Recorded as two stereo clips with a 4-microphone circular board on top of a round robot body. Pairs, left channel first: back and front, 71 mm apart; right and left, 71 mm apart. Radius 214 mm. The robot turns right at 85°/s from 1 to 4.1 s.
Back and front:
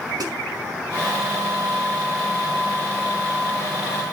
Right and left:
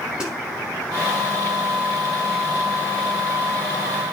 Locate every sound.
0.2 s a snare drum: 15° left, 6 m